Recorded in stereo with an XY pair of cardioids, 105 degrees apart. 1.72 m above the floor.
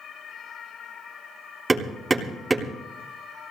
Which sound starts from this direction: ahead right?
Hammering, at 1.7 s.